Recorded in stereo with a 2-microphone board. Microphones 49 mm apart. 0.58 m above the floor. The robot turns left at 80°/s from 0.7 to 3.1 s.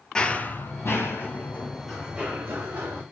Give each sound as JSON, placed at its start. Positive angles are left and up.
{"t": 0.1, "sound": "running footsteps", "side_deg": 15, "distance_m": 0.5}